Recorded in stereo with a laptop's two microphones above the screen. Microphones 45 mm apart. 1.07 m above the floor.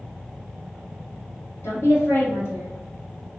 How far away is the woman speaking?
About 1.8 m.